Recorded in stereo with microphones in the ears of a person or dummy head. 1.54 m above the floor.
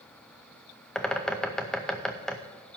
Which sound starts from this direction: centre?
A bird, at 0.9 s.